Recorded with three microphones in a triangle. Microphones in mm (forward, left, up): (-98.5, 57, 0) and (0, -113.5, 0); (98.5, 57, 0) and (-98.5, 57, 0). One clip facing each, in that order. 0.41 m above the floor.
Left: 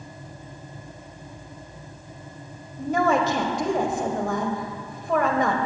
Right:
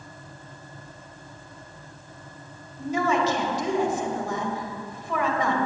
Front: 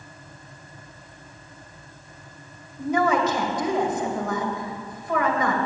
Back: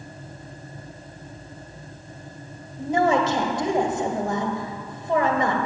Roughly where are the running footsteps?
I don't hear running footsteps.